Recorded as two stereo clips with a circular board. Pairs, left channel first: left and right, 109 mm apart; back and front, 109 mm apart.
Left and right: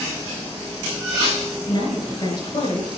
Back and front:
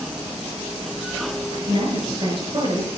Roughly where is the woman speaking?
Ahead left.